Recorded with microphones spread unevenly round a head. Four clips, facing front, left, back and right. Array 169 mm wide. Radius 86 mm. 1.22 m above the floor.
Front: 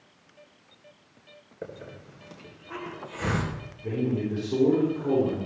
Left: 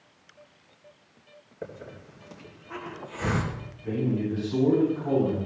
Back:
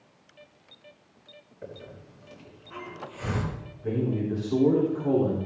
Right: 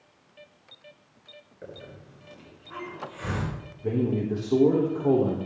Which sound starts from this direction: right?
A man speaking, at 3.8 s.